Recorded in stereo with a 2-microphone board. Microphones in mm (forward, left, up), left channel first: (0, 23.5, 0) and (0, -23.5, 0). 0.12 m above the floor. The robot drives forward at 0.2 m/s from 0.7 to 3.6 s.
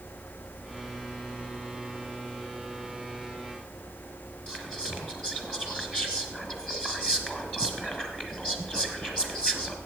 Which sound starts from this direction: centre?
Whispering, at 4.5 s.